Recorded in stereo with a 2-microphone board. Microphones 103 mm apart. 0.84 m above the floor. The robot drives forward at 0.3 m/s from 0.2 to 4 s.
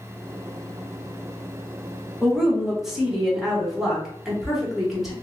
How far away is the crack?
No crack in this recording.